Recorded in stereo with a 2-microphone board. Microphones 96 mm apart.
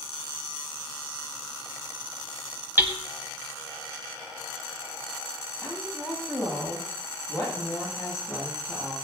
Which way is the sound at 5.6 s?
35° left (ahead or behind).